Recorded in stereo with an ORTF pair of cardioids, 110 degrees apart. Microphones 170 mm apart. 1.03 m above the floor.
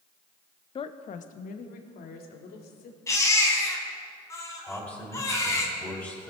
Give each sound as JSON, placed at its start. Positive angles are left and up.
{"t": 0.8, "sound": "a woman speaking", "azimuth_deg": 30, "distance_m": 0.7}
{"t": 3.1, "sound": "a baby crying", "azimuth_deg": 20, "distance_m": 3.0}
{"t": 4.7, "sound": "a man speaking", "azimuth_deg": 5, "distance_m": 5.5}